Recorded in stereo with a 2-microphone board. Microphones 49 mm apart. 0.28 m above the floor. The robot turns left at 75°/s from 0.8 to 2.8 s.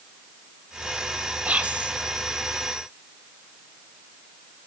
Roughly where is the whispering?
Right.